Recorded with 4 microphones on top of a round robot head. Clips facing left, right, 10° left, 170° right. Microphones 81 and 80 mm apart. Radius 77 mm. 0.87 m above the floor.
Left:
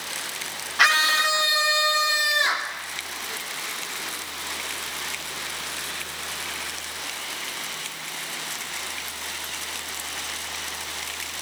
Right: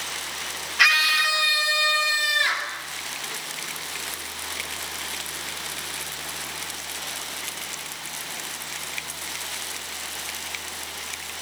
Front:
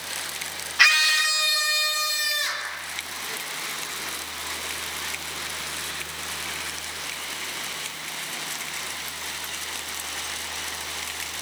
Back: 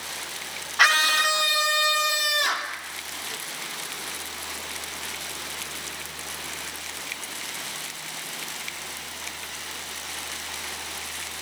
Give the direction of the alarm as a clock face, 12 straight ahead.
I don't hear an alarm.